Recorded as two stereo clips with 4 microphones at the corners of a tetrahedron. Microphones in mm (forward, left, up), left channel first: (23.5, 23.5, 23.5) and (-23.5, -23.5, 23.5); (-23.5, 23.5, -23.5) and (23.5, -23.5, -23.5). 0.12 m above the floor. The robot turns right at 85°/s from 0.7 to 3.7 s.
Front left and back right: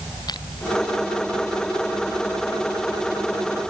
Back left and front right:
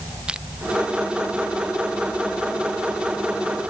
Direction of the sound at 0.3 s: 35° left.